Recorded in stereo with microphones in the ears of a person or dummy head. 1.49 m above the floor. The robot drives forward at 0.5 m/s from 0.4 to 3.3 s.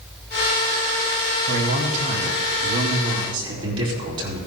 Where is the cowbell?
I don't hear a cowbell.